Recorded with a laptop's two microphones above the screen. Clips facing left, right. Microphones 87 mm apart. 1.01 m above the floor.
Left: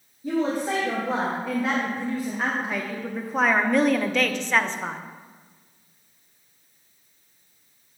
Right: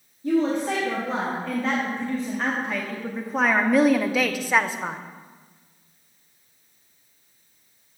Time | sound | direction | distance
0.2 | a woman speaking | 10° left (ahead or behind) | 2 m